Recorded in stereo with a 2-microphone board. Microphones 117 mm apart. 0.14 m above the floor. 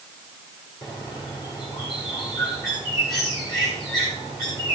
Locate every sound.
0.8 s a bird: 35° left (ahead or behind), 8 m